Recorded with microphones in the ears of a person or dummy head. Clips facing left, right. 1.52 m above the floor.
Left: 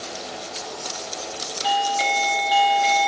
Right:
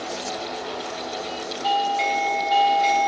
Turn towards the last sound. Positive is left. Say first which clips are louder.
# even
turn(degrees=15)  # may be behind; listen again after turning